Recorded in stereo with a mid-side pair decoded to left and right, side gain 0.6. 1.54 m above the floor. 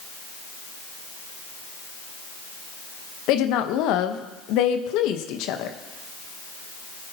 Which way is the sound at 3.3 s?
70° left.